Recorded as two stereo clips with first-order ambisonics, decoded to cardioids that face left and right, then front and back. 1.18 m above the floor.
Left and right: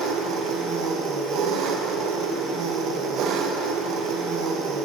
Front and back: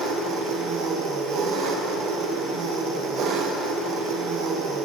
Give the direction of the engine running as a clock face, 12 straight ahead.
4 o'clock.